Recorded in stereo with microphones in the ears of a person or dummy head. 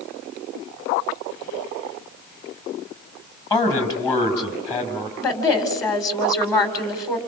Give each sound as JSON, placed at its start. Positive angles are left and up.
{"t": 3.5, "sound": "a man speaking", "side_deg": 25, "distance_m": 5.5}
{"t": 5.2, "sound": "a woman speaking", "side_deg": 25, "distance_m": 4.5}